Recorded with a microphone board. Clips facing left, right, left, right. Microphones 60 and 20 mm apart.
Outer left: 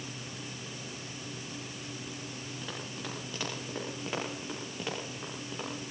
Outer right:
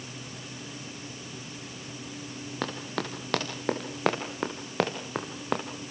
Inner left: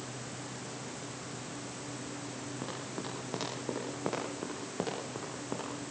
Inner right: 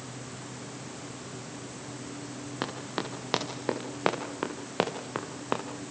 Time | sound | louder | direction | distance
2.6 | running footsteps | outer right 10 dB, inner right 8 dB | 70° right (ahead or behind) | 7 m